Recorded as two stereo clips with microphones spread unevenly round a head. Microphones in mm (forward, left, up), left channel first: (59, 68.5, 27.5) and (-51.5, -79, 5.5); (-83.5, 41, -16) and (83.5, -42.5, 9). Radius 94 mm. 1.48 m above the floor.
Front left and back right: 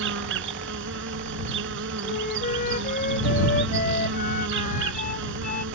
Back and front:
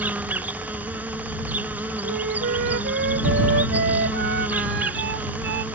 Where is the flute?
10° left.